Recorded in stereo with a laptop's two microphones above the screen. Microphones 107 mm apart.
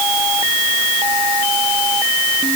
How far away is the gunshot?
No gunshot in this recording.